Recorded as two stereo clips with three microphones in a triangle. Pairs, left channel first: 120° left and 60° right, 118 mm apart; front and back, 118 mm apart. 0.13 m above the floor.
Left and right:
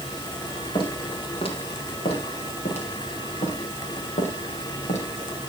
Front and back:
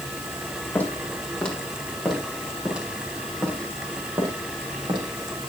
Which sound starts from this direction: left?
Footsteps, at 0.8 s.